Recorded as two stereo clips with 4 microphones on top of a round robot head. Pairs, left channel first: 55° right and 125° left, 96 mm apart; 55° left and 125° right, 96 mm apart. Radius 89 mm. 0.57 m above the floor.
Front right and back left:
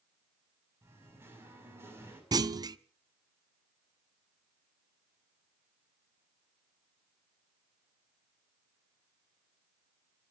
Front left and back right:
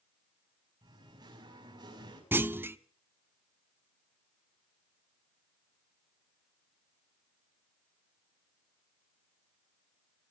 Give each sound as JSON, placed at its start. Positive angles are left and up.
{"t": 0.8, "sound": "singing", "azimuth_deg": -170, "distance_m": 6.5}
{"t": 2.3, "sound": "a clunk", "azimuth_deg": 170, "distance_m": 1.0}